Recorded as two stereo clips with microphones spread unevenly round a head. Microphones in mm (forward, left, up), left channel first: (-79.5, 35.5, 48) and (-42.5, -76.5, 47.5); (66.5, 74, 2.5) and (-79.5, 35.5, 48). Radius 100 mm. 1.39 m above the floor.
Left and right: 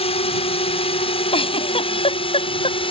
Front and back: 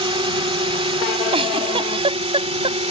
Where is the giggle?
145° left.